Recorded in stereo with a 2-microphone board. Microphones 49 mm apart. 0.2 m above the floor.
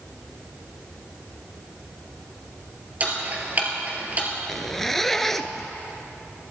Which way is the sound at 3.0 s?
35° right (ahead or behind).